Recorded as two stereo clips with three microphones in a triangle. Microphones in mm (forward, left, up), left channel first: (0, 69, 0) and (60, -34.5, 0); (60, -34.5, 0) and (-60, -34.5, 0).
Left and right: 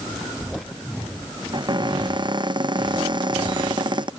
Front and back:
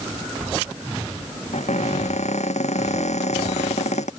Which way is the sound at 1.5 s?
10° right.